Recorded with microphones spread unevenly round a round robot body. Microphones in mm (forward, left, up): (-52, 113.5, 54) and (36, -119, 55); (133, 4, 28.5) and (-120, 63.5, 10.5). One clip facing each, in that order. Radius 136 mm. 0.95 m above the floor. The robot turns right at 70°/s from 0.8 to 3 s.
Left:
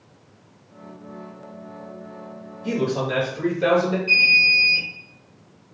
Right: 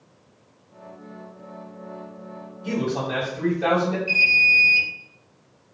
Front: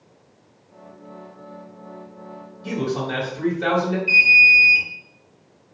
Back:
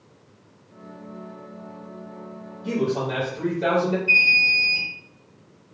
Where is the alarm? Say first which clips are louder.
Left 1 dB, front 1 dB; 20° left, 1.7 m.